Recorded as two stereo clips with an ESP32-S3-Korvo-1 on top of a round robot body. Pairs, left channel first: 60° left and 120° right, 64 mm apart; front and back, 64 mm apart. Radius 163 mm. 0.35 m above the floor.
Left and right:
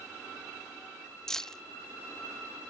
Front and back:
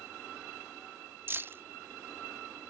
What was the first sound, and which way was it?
Keys jangling, 140° left.